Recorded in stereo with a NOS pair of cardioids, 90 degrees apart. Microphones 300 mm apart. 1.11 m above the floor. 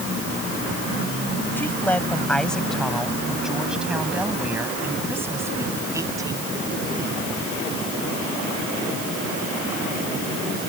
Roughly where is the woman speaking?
Ahead.